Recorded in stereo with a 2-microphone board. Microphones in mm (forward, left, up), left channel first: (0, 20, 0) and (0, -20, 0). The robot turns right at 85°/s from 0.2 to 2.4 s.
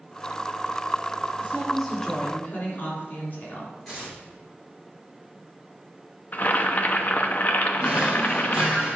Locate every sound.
1.4 s a woman speaking: 45° right, 3.5 m; by 3.7 s 40° left, 3.5 m
3.9 s tearing paper: 15° left (ahead or behind), 4 m
6.3 s boiling: 40° left (ahead or behind), 0.7 m
7.8 s a drawer: 15° right (ahead or behind), 3.5 m